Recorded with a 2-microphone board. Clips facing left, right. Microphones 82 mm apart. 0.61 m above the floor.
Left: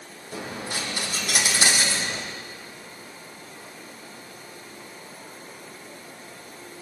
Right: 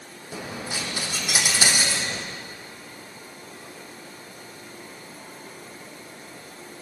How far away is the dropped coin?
About 4 m.